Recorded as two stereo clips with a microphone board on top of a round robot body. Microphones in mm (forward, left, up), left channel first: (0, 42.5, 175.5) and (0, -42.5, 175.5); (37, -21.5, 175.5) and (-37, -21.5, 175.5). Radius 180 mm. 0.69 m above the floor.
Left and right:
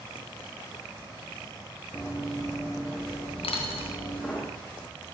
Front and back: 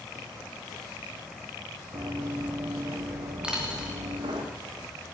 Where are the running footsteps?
155° left, 1.5 m; by 4.4 s 165° left, 3 m.